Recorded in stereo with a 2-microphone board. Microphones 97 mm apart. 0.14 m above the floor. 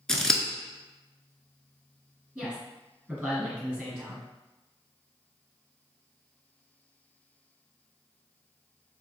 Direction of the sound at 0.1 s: 5° left (ahead or behind).